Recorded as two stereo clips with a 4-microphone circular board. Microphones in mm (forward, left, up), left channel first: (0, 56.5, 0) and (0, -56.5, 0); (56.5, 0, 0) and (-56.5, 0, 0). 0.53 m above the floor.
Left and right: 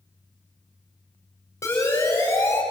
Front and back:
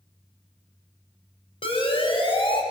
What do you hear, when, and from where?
1.6 s a siren: 25° left, 5 m